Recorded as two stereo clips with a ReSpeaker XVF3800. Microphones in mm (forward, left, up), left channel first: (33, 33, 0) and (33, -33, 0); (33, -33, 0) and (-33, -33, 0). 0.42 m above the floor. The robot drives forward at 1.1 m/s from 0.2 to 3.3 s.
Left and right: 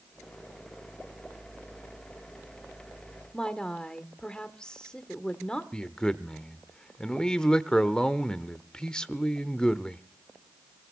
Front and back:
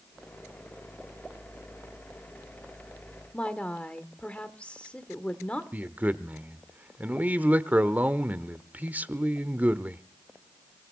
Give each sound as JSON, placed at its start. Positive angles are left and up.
{"t": 3.3, "sound": "a woman speaking", "azimuth_deg": 40, "distance_m": 1.4}
{"t": 5.7, "sound": "a man speaking", "azimuth_deg": 155, "distance_m": 0.9}